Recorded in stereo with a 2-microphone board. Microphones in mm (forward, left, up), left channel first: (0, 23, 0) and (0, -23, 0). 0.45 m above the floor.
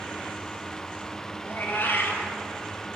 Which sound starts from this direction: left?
A cat meowing, at 1.4 s.